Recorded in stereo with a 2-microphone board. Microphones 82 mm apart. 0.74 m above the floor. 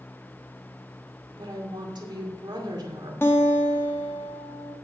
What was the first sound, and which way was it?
A woman speaking, 65° right (ahead or behind).